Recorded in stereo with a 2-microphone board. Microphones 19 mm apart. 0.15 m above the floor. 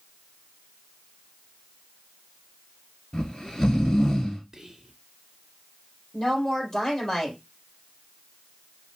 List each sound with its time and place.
3.1 s snoring: 35° left (ahead or behind), 2 m
4.5 s whispering: 25° right (ahead or behind), 1.6 m
6.1 s a woman speaking: 25° left (ahead or behind), 4.5 m